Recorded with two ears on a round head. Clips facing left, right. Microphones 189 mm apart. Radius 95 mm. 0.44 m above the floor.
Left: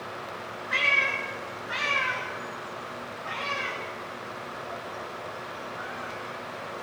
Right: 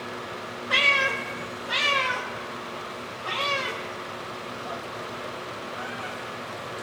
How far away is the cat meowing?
About 1.5 m.